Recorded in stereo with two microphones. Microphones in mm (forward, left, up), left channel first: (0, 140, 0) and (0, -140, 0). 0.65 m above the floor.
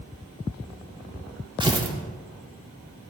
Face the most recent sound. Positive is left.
turn(degrees=-15)  # may be behind; listen again after turning